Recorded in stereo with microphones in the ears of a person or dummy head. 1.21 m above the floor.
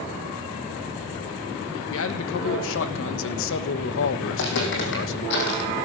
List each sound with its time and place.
1.9 s a man speaking: 60° left (ahead or behind), 1.1 m
4.3 s footsteps: 70° left (ahead or behind), 3.5 m; by 5.7 s 55° left (ahead or behind), 3 m